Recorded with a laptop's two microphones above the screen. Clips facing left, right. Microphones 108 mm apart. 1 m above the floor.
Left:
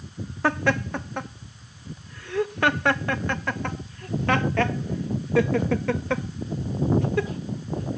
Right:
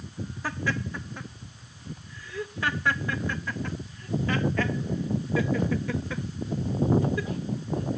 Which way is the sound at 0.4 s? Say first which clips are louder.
Left 8 dB; 70° left (ahead or behind).